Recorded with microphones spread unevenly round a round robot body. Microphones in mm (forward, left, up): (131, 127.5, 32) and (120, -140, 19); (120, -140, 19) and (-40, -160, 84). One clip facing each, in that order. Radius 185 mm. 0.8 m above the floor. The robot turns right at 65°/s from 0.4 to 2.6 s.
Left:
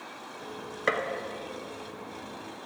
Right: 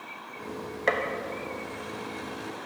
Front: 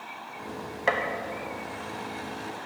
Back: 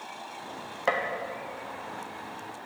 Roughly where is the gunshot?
Ahead left.